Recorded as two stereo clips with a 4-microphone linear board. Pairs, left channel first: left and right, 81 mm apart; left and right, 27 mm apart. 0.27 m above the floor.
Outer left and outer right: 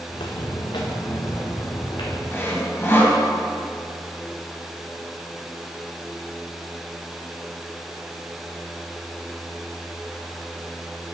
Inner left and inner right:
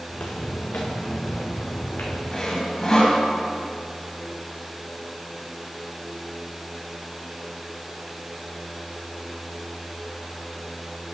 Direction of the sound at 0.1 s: 70° left (ahead or behind).